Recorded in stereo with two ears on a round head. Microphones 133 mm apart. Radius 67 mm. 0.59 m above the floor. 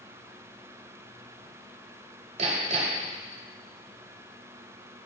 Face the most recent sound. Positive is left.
turn(degrees=-45)  # may be behind; listen again after turning